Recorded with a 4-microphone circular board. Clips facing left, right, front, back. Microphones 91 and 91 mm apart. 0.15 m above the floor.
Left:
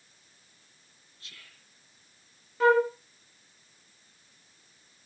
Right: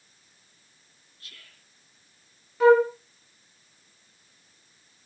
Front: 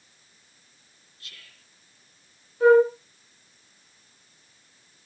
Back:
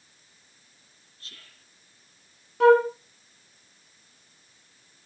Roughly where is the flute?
Behind.